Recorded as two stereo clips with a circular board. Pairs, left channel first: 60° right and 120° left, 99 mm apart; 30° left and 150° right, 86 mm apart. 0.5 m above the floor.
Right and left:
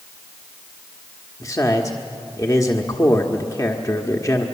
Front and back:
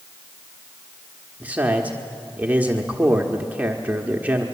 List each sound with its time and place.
1.4 s a man speaking: 90° right, 1.2 m